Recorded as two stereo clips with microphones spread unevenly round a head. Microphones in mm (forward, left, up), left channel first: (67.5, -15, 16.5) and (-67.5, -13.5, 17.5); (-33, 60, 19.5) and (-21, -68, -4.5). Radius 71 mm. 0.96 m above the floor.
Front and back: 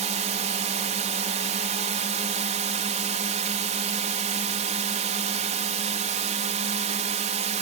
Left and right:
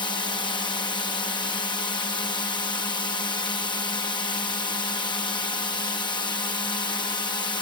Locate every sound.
0.0 s a drone: 150° left